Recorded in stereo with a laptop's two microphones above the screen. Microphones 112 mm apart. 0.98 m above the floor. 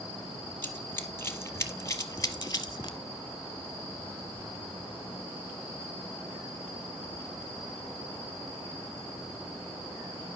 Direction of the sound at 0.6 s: 20° left (ahead or behind).